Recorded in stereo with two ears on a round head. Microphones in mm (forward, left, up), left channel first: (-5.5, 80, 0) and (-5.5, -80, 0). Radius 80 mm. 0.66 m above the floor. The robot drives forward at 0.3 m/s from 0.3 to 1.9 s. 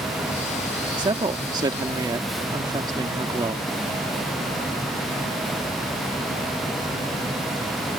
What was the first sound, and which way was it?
A woman speaking, 25° right (ahead or behind).